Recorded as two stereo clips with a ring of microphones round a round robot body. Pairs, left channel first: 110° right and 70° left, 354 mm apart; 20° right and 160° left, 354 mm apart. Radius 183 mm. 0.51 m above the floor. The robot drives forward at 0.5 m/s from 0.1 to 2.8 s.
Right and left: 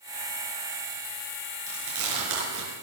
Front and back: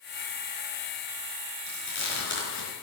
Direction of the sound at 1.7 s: 25° left.